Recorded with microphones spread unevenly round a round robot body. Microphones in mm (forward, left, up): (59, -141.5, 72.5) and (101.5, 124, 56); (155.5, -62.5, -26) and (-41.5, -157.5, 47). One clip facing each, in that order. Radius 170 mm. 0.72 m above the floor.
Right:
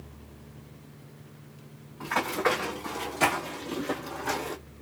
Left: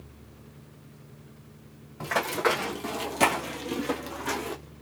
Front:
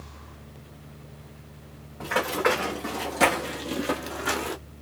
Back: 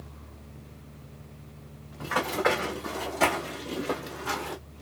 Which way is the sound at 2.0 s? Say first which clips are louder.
Left 1 dB, front 2 dB; 115° left.